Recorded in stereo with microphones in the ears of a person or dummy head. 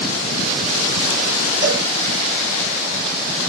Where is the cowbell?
70° right (ahead or behind), 6 m.